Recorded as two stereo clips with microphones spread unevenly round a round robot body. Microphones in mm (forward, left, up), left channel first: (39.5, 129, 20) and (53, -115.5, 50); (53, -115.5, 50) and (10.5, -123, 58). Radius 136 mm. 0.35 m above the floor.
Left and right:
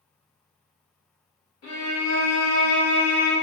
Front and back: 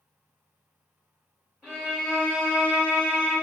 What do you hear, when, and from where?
1.6 s a violin: 105° left, 1.9 m